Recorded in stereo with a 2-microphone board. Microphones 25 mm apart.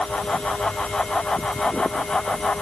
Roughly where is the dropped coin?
I don't hear a dropped coin.